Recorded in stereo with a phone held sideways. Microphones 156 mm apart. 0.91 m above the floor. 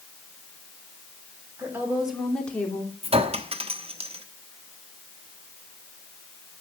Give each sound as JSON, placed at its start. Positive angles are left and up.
{"t": 1.6, "sound": "a woman speaking", "side_deg": -15, "distance_m": 3.0}
{"t": 3.0, "sound": "a clink", "side_deg": -40, "distance_m": 1.0}